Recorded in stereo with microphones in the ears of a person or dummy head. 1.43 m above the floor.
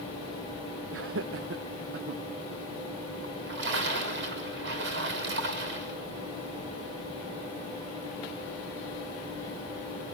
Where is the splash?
65° right (ahead or behind), 3.5 m.